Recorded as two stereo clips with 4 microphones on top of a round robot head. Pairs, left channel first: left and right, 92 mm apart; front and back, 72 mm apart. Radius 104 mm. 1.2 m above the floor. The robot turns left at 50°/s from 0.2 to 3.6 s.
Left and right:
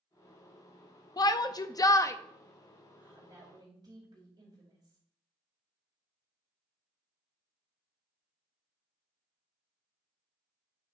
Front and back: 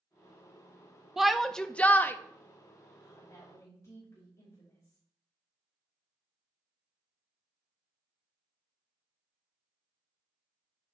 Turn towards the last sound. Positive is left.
turn(degrees=-45)